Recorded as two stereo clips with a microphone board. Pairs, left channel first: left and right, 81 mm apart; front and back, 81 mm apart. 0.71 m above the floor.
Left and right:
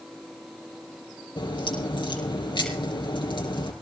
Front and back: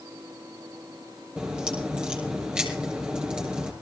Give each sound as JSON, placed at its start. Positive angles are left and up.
{"t": 1.4, "sound": "a crack", "azimuth_deg": 100, "distance_m": 4.0}